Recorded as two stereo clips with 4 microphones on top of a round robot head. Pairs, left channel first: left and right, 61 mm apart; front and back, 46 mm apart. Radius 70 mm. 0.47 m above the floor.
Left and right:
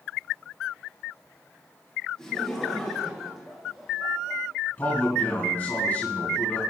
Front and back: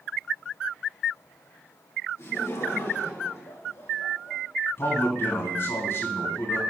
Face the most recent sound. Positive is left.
turn(degrees=25)